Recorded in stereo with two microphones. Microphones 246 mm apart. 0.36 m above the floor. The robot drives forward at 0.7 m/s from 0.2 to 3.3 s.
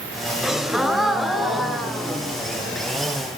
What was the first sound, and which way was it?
A gasp, centre (ahead or behind).